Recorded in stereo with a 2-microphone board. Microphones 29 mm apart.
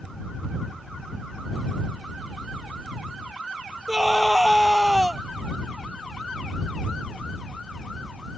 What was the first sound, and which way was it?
A scream, 20° right (ahead or behind).